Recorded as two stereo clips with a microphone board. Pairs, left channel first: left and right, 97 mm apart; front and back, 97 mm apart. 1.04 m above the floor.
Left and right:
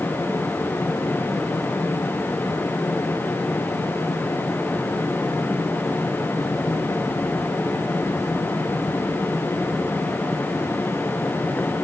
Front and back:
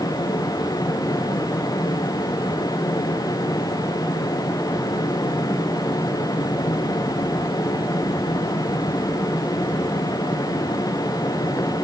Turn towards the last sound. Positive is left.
No sound to turn to.